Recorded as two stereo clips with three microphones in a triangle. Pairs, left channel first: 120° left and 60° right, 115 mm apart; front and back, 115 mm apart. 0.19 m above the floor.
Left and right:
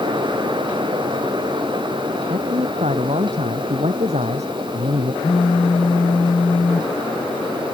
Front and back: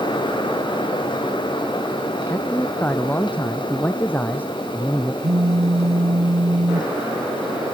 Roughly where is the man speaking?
Right.